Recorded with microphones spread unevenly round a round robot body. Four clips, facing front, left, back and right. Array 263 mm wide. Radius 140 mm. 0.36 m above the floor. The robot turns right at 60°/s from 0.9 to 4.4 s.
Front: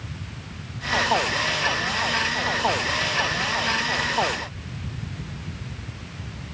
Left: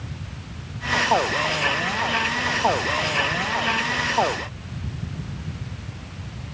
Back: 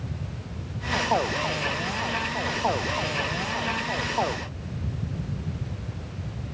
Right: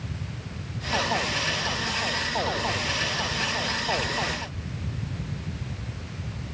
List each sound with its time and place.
Only background noise.